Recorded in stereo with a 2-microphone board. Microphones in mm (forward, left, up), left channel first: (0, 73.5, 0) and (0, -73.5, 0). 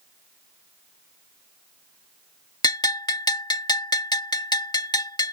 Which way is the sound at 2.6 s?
25° left (ahead or behind).